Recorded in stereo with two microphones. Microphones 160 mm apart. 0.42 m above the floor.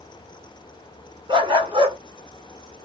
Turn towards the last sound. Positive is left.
turn(degrees=-30)  # may be behind; listen again after turning